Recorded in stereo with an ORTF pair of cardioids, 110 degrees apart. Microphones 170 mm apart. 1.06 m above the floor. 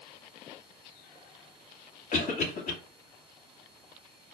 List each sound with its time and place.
2.1 s a cough: 50° left, 2.0 m